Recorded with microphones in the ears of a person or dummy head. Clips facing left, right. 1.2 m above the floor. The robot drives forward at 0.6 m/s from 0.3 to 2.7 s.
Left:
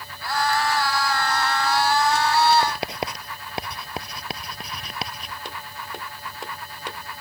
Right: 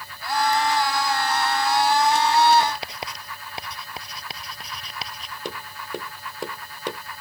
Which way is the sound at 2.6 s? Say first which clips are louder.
Left 2 dB; 50° left (ahead or behind).